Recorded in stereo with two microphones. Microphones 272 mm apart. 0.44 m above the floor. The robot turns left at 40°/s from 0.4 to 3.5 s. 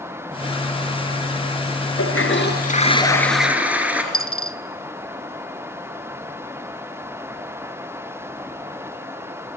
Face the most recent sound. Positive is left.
turn(degrees=50)  # may be behind; listen again after turning